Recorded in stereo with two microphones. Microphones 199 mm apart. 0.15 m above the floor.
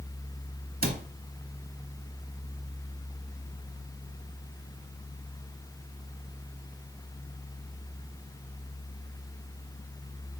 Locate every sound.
0.8 s a cupboard door: 50° right (ahead or behind), 0.6 m